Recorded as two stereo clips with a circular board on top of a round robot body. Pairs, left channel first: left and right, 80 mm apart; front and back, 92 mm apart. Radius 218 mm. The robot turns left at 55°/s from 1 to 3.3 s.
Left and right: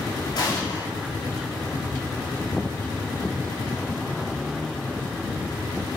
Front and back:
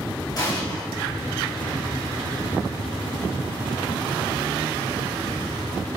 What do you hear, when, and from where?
0.3 s an explosion: 50° left, 4.5 m